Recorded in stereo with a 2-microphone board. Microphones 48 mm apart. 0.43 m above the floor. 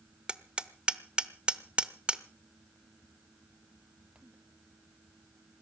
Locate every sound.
0.3 s hammering: 25° right (ahead or behind), 0.9 m